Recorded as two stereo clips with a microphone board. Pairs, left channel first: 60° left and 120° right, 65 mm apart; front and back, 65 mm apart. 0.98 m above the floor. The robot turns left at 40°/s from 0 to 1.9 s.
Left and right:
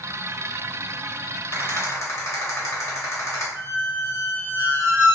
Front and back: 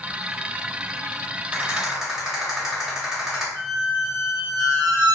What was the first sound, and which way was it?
A rattle, 115° left.